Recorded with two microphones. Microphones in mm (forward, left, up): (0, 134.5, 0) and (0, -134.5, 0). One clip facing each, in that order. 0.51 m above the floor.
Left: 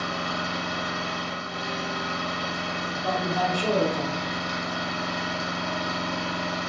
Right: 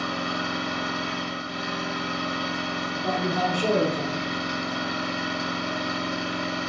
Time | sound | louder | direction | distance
0.0 | an engine running | right 2 dB | 30° right (ahead or behind) | 0.8 m
2.9 | a man speaking | right 1 dB | 25° right (ahead or behind) | 0.7 m